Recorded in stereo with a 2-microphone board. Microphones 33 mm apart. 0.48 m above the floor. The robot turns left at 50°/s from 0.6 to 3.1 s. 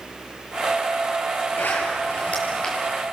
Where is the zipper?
80° left, 8 m; by 2.8 s 20° left (ahead or behind), 8 m.